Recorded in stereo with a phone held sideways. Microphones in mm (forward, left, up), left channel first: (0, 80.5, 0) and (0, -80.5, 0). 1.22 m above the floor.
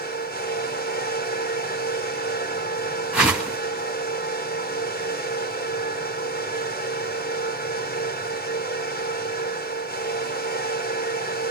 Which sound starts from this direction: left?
A fan, at 0.0 s.